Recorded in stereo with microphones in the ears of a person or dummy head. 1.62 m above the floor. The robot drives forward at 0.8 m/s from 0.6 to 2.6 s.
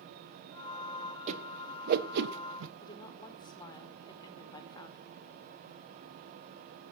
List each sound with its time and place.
1.3 s a whoosh: 35° right (ahead or behind), 1.6 m; by 2.7 s 80° right, 1.0 m
2.8 s a woman speaking: 20° left (ahead or behind), 1.6 m